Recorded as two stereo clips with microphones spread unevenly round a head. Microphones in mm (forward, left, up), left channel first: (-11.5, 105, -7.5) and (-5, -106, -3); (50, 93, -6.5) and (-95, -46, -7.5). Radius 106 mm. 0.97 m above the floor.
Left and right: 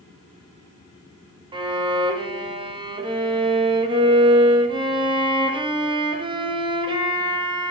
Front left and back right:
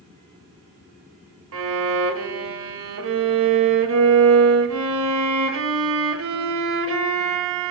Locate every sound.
1.5 s a violin: 155° right, 0.7 m